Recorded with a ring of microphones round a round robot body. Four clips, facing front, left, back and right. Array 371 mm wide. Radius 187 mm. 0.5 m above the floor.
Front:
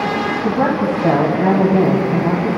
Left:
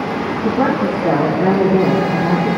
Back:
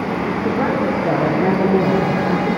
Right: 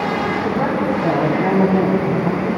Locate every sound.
0.4 s a woman speaking: 5° left, 4.5 m